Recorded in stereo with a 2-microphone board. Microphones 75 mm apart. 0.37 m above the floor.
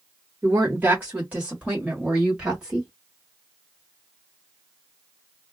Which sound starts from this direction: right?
A woman speaking, at 0.4 s.